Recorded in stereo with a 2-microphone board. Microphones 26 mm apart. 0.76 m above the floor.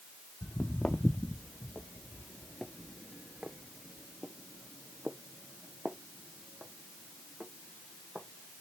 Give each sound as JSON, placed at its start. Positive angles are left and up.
{"t": 0.4, "sound": "footsteps", "side_deg": 60, "distance_m": 1.5}